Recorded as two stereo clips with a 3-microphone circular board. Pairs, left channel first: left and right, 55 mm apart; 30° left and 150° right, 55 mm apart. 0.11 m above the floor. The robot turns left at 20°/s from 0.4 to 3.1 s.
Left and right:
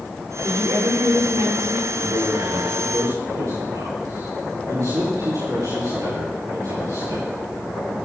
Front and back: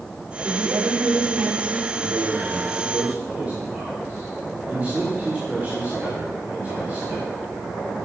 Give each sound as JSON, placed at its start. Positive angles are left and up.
{"t": 0.4, "sound": "a woman speaking", "azimuth_deg": -70, "distance_m": 7.5}
{"t": 1.9, "sound": "a man speaking", "azimuth_deg": -60, "distance_m": 9.5}